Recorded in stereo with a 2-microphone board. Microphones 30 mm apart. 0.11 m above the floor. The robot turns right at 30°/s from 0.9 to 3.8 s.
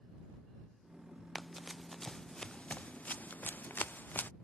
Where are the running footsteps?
10° right (ahead or behind); by 4.3 s 80° left.